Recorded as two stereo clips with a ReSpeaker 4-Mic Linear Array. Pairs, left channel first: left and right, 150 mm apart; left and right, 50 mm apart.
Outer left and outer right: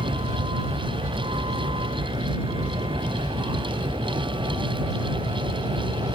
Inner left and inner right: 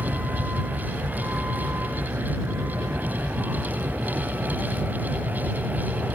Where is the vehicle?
40° right (ahead or behind); by 6.2 s 35° right (ahead or behind).